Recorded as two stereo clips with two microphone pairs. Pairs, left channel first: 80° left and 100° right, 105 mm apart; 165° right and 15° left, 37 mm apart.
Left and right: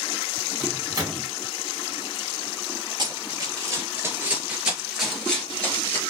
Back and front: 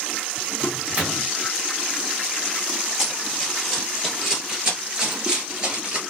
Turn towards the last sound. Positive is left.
turn(degrees=30)